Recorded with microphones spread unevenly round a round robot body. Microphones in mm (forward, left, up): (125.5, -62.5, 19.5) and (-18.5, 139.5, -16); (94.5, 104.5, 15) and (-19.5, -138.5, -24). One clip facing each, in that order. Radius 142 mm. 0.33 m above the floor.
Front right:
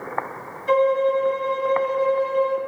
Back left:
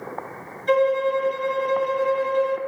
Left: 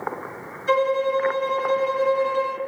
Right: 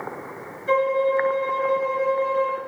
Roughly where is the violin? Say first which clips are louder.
Front right 1 dB, even; left.